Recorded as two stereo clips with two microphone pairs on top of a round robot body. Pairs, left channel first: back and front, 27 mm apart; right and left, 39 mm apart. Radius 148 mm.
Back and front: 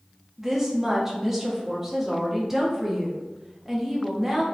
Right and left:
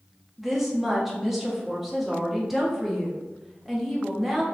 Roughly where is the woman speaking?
Ahead.